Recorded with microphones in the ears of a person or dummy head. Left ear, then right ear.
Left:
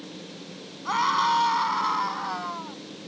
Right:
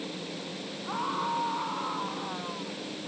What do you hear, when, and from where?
0.8 s a scream: 70° left (ahead or behind); by 2.8 s 75° left (ahead or behind)